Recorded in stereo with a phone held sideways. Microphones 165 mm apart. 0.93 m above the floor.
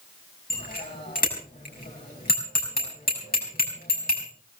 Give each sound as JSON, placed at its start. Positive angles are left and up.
{"t": 0.5, "sound": "a bicycle bell", "side_deg": 65, "distance_m": 5.0}